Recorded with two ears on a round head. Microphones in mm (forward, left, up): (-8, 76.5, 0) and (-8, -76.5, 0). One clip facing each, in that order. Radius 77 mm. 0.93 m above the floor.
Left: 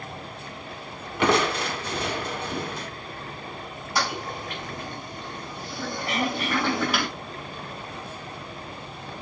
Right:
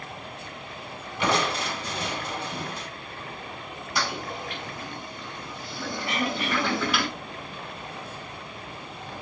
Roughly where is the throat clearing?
Left.